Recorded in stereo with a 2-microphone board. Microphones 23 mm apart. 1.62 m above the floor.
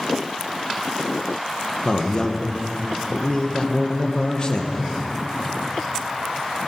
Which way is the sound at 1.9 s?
40° left (ahead or behind).